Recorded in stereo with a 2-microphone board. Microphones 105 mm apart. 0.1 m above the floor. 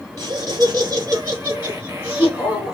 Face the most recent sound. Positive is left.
turn(degrees=-5)  # may be behind; listen again after turning